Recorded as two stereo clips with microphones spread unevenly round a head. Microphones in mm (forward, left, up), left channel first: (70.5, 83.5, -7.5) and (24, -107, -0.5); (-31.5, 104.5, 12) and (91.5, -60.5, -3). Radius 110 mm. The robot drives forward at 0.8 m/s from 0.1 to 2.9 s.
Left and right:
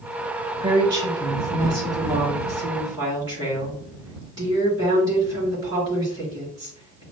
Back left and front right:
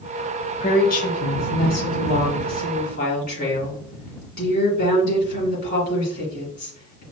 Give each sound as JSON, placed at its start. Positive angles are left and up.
{"t": 0.6, "sound": "a woman speaking", "azimuth_deg": -175, "distance_m": 0.7}